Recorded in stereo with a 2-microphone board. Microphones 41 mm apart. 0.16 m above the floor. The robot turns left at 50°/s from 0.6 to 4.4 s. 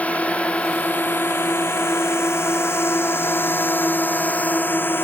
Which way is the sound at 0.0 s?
35° left (ahead or behind).